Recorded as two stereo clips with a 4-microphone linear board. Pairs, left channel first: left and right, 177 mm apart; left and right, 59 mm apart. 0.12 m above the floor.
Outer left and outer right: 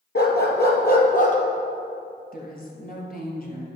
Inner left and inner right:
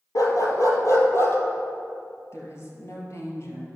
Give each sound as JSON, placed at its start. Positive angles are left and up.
{"t": 0.1, "sound": "a dog barking", "side_deg": 70, "distance_m": 1.1}
{"t": 2.3, "sound": "a woman speaking", "side_deg": 55, "distance_m": 2.0}